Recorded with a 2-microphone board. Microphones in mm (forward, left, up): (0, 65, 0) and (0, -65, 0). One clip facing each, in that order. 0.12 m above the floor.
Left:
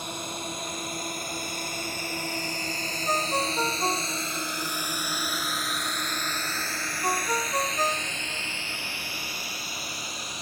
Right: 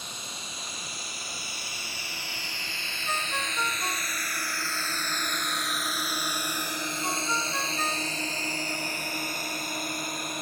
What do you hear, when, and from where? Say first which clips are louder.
0.0 s a drone: left 8 dB; 65° left (ahead or behind); by 10.4 s 55° right (ahead or behind)
3.1 s a ringtone: left 6 dB; 40° left (ahead or behind)